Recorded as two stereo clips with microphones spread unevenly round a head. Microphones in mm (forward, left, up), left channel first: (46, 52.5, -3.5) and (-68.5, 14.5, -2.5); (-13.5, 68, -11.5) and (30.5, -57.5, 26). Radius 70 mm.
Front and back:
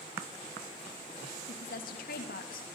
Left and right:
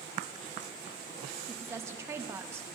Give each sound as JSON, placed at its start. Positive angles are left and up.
{"t": 1.5, "sound": "a woman speaking", "azimuth_deg": 0, "distance_m": 3.0}